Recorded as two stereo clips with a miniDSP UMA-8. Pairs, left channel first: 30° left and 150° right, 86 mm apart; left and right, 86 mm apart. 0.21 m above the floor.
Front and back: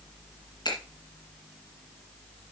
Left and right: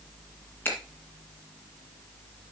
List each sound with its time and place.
0.7 s a finger snap: 30° left, 2 m